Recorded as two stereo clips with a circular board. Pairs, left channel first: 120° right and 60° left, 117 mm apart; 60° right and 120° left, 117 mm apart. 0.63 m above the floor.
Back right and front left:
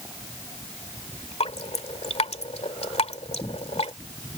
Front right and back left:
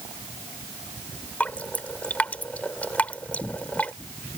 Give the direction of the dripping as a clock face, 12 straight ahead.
5 o'clock.